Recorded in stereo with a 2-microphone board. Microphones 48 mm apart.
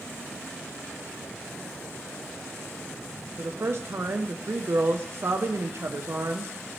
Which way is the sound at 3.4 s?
55° right (ahead or behind).